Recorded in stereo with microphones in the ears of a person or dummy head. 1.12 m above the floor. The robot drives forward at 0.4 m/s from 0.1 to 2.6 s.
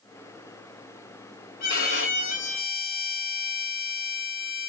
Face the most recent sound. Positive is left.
turn(degrees=35)  # may be behind; listen again after turning